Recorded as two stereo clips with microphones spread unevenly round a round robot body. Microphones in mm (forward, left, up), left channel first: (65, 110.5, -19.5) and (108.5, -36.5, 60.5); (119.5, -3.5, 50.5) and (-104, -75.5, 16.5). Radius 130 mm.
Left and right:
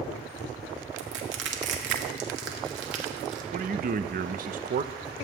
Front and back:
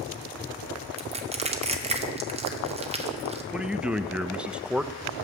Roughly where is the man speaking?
Right.